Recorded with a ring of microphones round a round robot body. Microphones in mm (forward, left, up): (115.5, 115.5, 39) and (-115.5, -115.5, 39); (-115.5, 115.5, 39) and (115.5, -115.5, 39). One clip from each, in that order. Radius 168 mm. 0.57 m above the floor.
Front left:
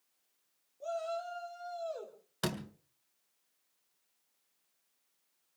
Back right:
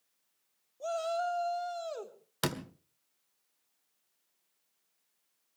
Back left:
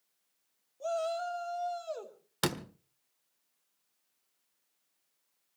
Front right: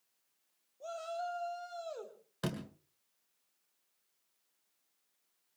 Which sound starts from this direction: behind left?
A door slam, at 2.4 s.